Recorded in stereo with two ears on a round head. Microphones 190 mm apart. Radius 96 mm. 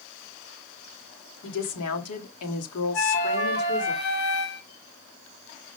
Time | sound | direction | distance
1.4 | a woman speaking | 70° left (ahead or behind) | 2.5 m
2.9 | a flute | 65° left (ahead or behind) | 3 m